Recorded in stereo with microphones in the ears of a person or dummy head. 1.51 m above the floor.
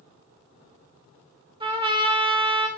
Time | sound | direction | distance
1.6 | a trumpet | 20° right (ahead or behind) | 1.0 m